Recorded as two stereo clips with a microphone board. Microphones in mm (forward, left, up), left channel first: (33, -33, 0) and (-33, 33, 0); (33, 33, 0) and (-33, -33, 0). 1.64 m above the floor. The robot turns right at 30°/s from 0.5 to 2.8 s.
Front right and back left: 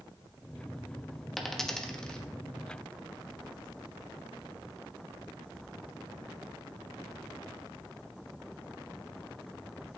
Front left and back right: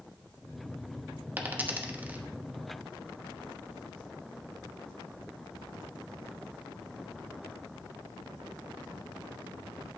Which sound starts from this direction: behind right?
A dropped coin, at 1.4 s.